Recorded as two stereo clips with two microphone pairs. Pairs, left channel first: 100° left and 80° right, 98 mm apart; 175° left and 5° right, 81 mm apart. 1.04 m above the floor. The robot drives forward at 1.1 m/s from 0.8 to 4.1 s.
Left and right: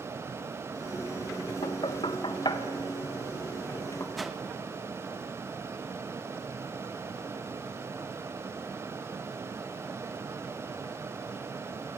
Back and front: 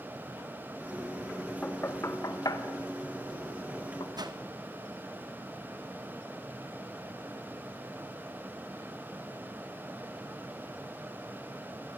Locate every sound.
1.6 s knocking: 100° left, 1.2 m; by 4.1 s 160° left, 3 m
4.2 s a whoosh: 5° left, 1.3 m